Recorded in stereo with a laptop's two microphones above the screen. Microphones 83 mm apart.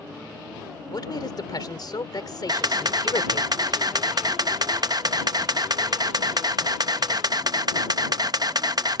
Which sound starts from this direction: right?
A camera shutter, at 2.5 s.